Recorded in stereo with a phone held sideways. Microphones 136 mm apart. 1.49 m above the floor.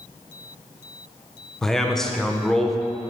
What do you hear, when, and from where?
1.6 s a man speaking: 5° left (ahead or behind), 0.8 m